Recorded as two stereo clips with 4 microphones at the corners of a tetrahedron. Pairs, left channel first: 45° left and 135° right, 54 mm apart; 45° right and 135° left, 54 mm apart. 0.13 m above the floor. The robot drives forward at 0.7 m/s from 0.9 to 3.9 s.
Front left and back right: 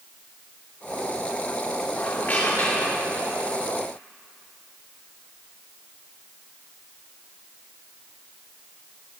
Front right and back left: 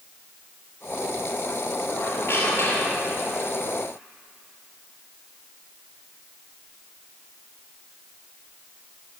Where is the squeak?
5° right, 2.5 m; by 3.2 s 10° right, 1.6 m.